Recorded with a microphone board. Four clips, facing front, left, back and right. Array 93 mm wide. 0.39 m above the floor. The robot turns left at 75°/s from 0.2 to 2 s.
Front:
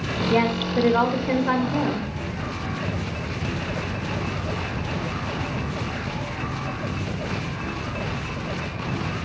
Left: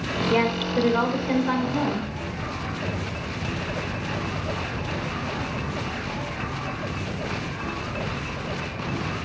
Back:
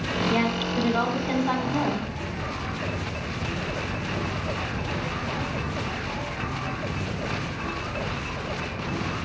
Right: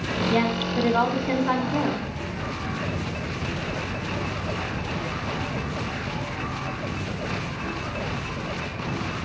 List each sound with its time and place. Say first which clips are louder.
0.3 s a woman speaking: left 2 dB, front 6 dB; 60° left, 1.6 m; by 2.1 s 65° right, 1.6 m